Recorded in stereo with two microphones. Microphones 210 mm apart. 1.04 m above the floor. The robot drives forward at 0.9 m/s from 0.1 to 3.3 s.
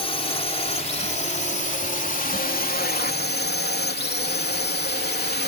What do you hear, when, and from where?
0.0 s a drone: 25° left (ahead or behind); by 5.5 s 50° left (ahead or behind)